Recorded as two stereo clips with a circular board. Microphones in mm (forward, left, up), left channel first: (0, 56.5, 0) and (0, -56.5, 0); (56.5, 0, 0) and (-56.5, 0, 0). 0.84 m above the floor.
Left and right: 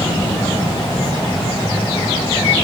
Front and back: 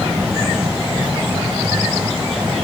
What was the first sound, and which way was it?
Only background noise.